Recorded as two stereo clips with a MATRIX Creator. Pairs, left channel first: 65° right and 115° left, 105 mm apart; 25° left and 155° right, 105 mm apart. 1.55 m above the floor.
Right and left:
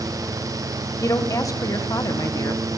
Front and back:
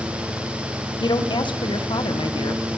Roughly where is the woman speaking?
Ahead.